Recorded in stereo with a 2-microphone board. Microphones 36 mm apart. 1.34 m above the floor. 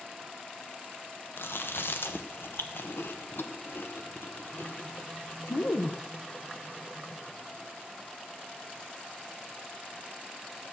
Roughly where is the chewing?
Left.